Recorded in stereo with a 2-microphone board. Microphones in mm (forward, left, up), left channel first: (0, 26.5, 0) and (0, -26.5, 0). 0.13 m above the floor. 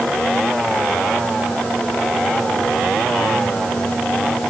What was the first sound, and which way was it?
Only background noise.